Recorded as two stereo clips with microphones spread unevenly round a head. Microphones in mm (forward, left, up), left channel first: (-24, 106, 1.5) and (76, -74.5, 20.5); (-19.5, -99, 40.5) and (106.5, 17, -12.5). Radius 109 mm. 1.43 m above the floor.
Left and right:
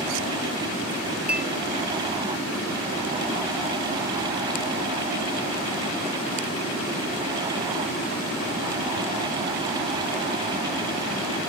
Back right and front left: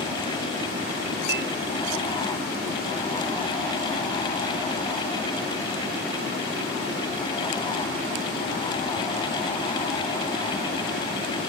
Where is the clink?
25° left.